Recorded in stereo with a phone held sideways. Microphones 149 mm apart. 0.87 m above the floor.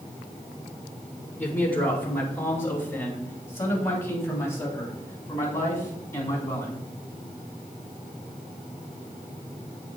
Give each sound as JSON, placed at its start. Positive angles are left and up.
{"t": 1.4, "sound": "a man speaking", "side_deg": 10, "distance_m": 3.5}